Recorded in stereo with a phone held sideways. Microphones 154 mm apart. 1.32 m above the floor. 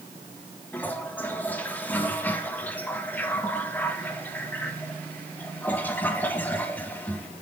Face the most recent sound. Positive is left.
turn(degrees=10)  # may be behind; listen again after turning